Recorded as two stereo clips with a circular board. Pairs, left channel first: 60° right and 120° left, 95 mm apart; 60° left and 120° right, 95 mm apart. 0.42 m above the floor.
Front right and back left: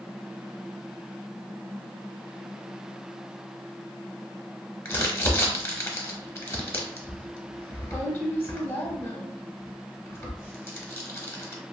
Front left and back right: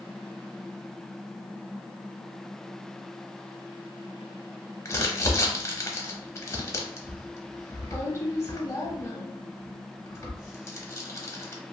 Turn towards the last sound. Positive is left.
turn(degrees=0)